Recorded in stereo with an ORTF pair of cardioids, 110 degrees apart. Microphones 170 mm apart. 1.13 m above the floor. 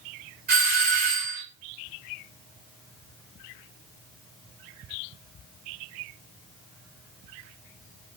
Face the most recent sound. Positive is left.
turn(degrees=-55)